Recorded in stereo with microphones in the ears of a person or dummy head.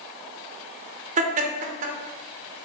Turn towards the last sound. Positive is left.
turn(degrees=-40)  # may be behind; listen again after turning